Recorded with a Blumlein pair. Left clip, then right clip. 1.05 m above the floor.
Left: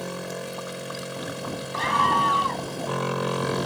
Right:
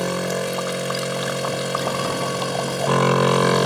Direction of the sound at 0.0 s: 65° right.